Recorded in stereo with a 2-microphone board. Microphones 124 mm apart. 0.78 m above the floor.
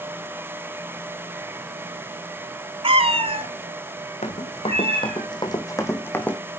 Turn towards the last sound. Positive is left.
turn(degrees=10)  # may be behind; listen again after turning